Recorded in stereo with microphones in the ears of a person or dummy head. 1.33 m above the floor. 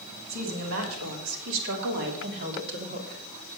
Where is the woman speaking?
80° right, 3 m; by 3.2 s 50° right (ahead or behind), 3 m.